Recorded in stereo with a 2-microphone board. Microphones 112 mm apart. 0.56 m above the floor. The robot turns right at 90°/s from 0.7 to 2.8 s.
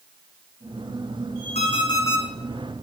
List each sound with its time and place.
1.6 s an alarm clock: 110° left, 4.5 m; by 2.2 s 170° left, 4.5 m